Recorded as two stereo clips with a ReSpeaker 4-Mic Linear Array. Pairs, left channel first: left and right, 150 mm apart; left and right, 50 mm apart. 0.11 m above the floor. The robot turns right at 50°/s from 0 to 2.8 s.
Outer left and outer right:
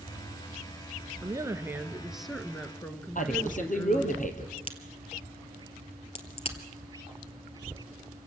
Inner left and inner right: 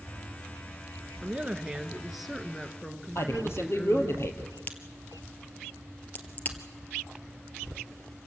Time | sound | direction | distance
1.2 | a woman speaking | 55° right | 1.2 m
3.1 | a man speaking | 60° left (ahead or behind) | 3 m
4.6 | a crack | 40° left (ahead or behind) | 1.7 m